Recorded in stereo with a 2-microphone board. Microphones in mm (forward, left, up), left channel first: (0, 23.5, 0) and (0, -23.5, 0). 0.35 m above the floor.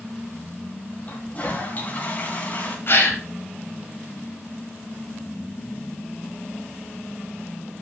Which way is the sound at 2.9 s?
50° left (ahead or behind).